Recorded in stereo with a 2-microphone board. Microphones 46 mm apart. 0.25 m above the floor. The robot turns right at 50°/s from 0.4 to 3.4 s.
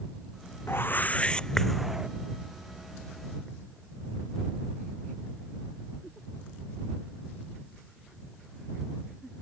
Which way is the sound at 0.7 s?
125° left.